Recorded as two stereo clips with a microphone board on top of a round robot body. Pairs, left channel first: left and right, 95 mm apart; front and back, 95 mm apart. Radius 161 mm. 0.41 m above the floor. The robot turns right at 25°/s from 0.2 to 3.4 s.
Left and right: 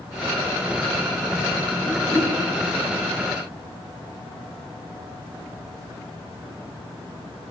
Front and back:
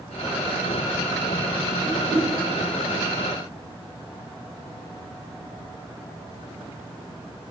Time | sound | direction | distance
1.8 | a whoosh | 155° left | 3.5 m